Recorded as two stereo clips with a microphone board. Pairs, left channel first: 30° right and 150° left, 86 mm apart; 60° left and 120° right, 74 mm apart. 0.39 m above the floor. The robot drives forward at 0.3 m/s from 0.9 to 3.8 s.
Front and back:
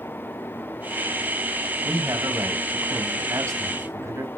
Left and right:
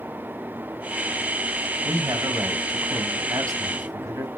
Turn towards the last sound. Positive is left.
turn(degrees=-160)